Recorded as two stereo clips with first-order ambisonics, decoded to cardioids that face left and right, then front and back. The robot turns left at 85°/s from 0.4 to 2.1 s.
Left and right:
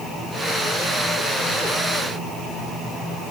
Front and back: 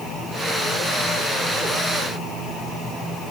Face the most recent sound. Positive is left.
No sound to turn to.